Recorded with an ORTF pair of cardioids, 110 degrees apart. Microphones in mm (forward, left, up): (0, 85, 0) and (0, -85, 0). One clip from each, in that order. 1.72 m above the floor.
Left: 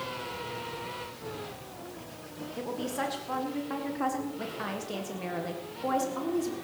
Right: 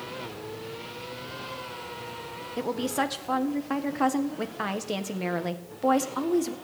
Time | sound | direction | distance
2.6 | a woman speaking | 40° right | 1.7 m